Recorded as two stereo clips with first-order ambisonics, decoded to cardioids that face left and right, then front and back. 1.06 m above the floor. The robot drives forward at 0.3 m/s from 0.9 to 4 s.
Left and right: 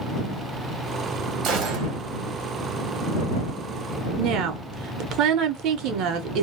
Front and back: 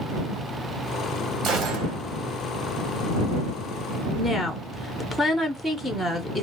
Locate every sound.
1.4 s a gunshot: 130° right, 1.5 m; by 2.0 s 135° right, 1.6 m
4.2 s a woman speaking: 85° right, 0.9 m